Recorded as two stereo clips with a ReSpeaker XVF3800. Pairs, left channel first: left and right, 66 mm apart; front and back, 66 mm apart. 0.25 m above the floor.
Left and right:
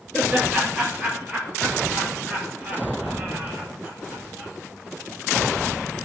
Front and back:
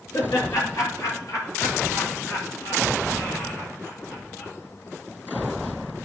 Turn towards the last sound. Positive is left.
turn(degrees=-30)